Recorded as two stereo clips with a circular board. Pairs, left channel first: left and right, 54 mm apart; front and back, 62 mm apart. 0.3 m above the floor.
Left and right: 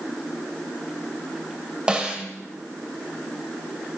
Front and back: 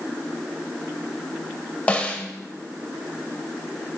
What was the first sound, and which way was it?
A snare drum, 40° right.